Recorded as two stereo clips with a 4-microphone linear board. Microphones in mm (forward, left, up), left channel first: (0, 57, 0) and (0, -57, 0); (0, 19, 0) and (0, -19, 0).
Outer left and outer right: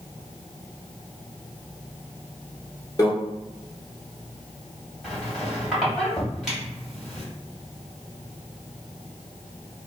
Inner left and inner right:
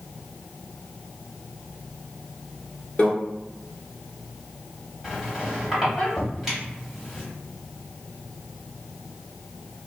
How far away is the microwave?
About 0.9 m.